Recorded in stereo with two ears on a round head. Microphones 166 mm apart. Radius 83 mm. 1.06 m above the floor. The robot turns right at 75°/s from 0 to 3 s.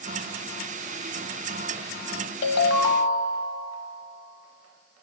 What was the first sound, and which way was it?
A ringtone, 100° left.